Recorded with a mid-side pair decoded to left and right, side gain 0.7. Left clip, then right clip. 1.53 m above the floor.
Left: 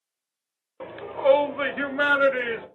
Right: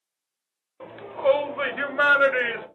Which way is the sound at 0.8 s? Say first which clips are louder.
Left 1 dB; 30° left.